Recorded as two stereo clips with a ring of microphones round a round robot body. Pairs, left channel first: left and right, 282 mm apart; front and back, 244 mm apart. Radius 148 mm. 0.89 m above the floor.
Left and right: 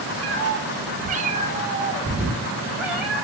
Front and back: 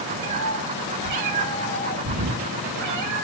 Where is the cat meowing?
135° right, 2 m; by 3.2 s straight behind, 3.5 m.